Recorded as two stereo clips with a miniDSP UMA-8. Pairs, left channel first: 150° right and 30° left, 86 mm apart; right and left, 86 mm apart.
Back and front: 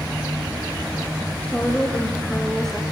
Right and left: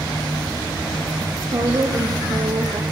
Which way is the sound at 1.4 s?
135° left.